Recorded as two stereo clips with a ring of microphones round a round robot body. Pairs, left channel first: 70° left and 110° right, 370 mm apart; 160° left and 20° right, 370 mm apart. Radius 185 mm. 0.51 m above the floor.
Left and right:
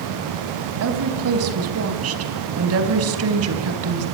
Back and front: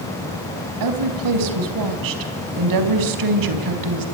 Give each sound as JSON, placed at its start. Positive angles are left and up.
{"t": 0.8, "sound": "a woman speaking", "azimuth_deg": -60, "distance_m": 4.5}